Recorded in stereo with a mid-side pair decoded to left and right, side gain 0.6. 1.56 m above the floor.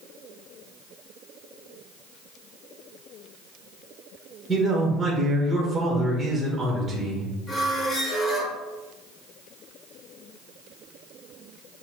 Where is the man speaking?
15° right, 1.6 m.